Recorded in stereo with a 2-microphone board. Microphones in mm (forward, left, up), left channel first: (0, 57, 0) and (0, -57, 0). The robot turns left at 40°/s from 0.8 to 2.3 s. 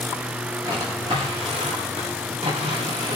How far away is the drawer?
About 9.5 m.